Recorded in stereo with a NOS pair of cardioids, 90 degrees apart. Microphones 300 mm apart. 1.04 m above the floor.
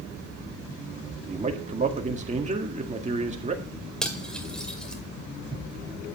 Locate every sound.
1.3 s a man speaking: 25° right, 1.8 m
4.0 s cutlery clinking: straight ahead, 2 m